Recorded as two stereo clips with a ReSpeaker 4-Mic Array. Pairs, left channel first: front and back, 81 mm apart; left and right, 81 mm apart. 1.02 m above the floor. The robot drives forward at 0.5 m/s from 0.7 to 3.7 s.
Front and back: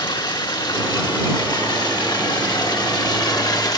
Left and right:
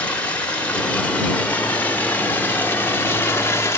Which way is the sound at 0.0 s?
20° left.